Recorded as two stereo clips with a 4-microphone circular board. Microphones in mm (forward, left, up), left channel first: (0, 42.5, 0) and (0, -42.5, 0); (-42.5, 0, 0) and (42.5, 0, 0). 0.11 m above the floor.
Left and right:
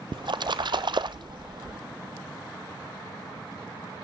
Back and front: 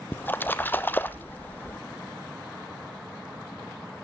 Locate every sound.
0.1 s a splash: 110° right, 0.9 m